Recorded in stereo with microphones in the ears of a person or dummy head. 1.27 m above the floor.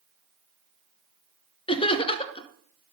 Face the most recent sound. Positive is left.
turn(degrees=25)  # may be behind; listen again after turning